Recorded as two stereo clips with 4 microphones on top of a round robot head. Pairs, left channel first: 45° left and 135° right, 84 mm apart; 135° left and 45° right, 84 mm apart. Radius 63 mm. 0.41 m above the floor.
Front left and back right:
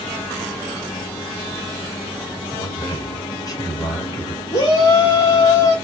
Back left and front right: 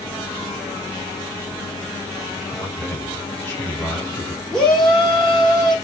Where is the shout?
50° left, 2.0 m.